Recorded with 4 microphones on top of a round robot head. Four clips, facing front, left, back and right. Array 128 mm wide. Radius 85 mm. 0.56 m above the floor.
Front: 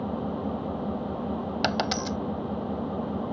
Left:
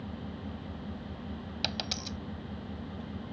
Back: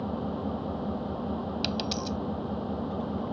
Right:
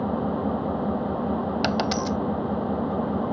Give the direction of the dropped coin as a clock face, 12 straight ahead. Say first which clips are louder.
Right 13 dB, front 4 dB; 1 o'clock.